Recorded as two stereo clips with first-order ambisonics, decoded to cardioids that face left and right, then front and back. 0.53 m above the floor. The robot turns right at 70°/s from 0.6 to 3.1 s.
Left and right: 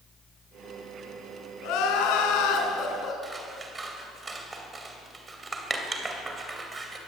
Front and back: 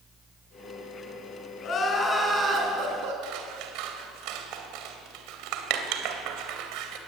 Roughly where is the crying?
Ahead left.